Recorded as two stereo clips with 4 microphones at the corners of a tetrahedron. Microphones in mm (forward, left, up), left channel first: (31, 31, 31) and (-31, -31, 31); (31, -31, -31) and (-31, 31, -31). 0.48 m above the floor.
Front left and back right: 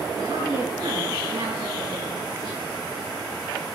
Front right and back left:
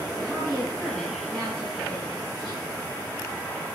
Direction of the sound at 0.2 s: 130° right.